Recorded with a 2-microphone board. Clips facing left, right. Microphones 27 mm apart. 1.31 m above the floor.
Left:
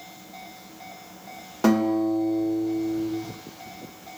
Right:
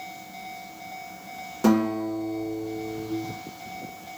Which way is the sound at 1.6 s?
25° left (ahead or behind).